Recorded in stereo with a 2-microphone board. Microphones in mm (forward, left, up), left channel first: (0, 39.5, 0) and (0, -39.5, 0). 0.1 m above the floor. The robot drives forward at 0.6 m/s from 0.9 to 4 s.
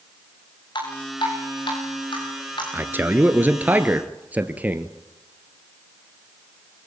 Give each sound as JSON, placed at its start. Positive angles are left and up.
{"t": 0.8, "sound": "dripping", "side_deg": 80, "distance_m": 9.5}
{"t": 2.7, "sound": "a man speaking", "side_deg": -25, "distance_m": 1.2}